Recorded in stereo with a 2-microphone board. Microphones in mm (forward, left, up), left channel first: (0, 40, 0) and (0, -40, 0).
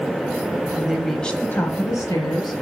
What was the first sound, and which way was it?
A woman speaking, 20° right (ahead or behind).